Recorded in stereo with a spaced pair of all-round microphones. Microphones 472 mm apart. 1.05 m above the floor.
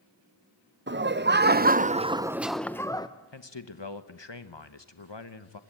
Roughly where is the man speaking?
Left.